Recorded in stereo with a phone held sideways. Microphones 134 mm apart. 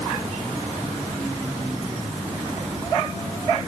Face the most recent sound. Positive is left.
No sound to turn to.